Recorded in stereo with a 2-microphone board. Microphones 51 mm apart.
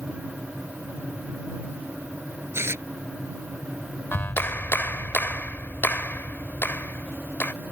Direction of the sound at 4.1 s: 45° left (ahead or behind).